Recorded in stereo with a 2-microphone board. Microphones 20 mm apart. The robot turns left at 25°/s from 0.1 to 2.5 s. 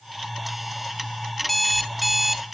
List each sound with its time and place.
1.4 s an alarm clock: 5° left (ahead or behind), 0.7 m; by 2.5 s 15° right (ahead or behind), 0.7 m